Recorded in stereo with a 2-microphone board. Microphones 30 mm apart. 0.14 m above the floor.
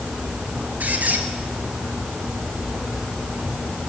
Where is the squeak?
55° right (ahead or behind), 1.4 m.